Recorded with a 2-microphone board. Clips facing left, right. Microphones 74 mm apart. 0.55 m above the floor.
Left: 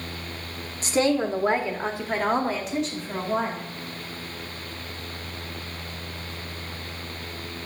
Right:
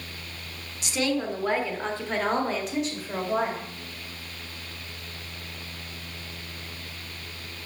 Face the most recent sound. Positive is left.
turn(degrees=-10)  # may be behind; listen again after turning